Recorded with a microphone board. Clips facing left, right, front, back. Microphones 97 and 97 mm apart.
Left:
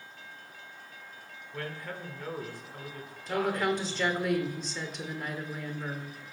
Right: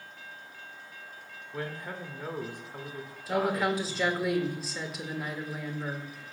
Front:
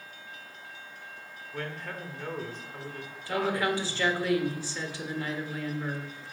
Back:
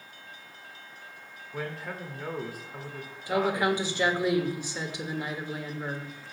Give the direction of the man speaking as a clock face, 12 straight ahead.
4 o'clock.